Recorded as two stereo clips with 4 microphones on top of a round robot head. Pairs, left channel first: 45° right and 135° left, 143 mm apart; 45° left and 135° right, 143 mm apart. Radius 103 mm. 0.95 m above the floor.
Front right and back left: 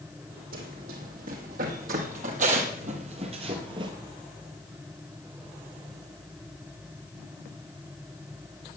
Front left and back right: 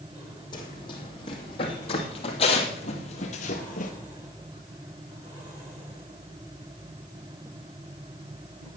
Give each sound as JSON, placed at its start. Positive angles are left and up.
{"t": 0.5, "sound": "running footsteps", "azimuth_deg": 105, "distance_m": 3.0}